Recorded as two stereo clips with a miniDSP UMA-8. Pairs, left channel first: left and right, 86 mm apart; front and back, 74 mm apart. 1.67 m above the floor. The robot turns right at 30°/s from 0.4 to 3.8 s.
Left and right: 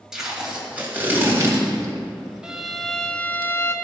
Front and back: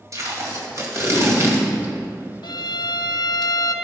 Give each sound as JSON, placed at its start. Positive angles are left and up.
{"t": 0.1, "sound": "tape being pulled", "azimuth_deg": -170, "distance_m": 2.0}
{"t": 2.4, "sound": "a violin", "azimuth_deg": -10, "distance_m": 0.7}